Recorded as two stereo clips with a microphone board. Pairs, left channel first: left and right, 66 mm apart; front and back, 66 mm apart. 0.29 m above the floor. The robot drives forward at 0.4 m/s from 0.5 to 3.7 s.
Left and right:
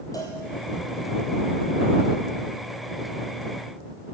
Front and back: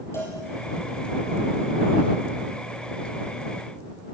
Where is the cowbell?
50° left, 3 m.